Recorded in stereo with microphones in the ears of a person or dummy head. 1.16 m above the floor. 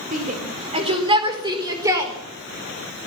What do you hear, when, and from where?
0.1 s a shout: 35° right (ahead or behind), 4.5 m; by 2.1 s 10° right (ahead or behind), 4.5 m